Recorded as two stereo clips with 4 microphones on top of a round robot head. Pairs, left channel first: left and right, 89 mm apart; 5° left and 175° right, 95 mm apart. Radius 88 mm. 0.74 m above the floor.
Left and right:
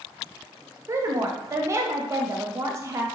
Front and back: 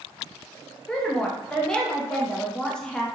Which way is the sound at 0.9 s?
70° right.